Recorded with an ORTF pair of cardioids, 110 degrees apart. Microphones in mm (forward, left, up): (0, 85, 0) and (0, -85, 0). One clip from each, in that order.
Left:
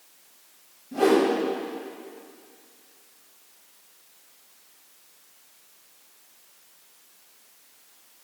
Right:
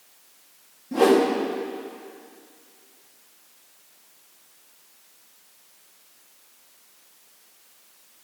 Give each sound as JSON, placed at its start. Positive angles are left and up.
{"t": 0.9, "sound": "a whoosh", "azimuth_deg": -60, "distance_m": 3.0}